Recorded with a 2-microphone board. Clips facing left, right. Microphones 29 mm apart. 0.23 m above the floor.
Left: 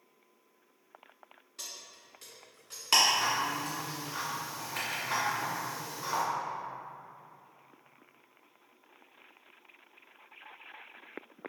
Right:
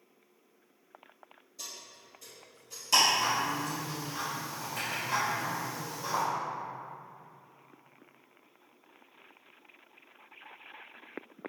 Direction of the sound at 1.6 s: 60° left (ahead or behind).